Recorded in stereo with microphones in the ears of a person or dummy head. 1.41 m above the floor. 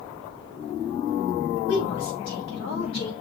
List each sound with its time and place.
1.7 s a woman speaking: 90° left, 5 m; by 3.1 s 85° left, 4.5 m